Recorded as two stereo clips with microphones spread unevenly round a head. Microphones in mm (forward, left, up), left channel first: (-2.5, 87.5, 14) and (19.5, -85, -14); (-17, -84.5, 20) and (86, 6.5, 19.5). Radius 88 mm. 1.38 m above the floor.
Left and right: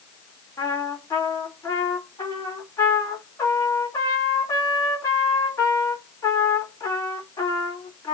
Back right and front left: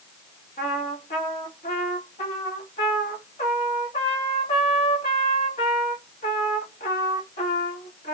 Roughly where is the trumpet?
Behind.